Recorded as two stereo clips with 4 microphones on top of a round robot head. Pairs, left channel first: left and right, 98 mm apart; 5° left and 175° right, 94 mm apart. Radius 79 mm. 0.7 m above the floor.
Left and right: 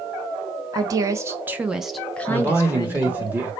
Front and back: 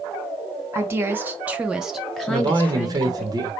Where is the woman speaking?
120° right, 0.9 m; by 3.3 s 65° left, 1.0 m.